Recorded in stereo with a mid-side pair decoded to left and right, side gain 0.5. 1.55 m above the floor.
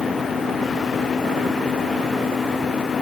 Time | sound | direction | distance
0.0 | a fan | 30° left | ?